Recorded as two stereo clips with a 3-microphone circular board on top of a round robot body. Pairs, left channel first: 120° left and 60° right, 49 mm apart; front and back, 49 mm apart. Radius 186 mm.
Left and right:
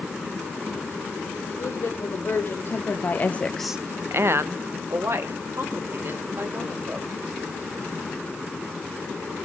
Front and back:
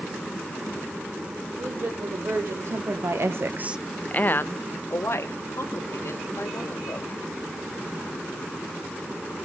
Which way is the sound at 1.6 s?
160° left.